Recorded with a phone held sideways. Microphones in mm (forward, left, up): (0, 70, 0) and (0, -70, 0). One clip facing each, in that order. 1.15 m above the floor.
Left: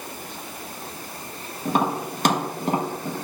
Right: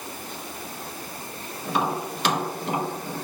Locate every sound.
1.6 s tapping: 45° left (ahead or behind), 1.4 m